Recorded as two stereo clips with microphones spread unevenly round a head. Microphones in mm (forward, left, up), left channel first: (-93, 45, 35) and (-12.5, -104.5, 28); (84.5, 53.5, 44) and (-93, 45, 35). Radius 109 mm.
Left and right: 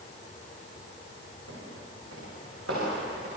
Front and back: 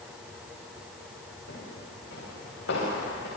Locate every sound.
1.5 s footsteps: 35° right, 8.5 m; by 3.3 s 25° right, 9.5 m